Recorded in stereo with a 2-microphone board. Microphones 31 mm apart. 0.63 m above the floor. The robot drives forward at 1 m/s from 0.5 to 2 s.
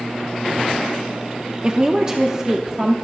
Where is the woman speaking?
25° right (ahead or behind), 0.9 m; by 2.9 s 20° right (ahead or behind), 1.0 m.